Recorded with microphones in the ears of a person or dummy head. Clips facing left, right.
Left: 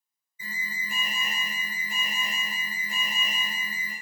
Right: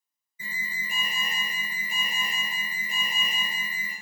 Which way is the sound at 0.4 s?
45° right (ahead or behind).